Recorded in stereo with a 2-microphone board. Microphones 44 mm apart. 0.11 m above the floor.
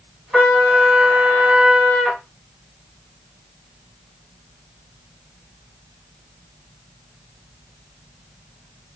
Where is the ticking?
No ticking in this recording.